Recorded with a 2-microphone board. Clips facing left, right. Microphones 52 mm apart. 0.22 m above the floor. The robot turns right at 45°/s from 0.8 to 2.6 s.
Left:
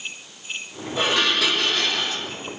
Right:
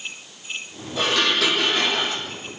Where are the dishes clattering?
155° left, 7.5 m; by 2.2 s 145° right, 7.5 m.